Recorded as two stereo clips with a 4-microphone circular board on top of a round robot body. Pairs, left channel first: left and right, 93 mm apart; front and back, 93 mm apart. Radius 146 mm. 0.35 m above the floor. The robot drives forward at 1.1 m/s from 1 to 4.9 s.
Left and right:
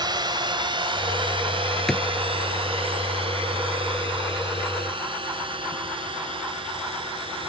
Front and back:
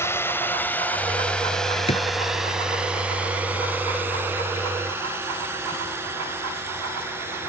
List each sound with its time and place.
0.0 s a drone: 60° right; by 7.5 s 115° right
1.9 s a drawer: 5° left